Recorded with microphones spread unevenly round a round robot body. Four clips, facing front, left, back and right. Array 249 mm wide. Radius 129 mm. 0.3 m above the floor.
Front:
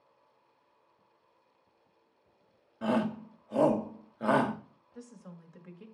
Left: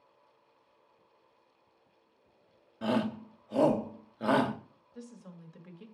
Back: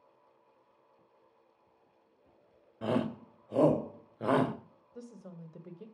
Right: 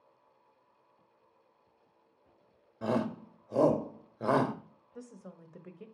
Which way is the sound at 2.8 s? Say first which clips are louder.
Left 1 dB, front 2 dB; 125° right.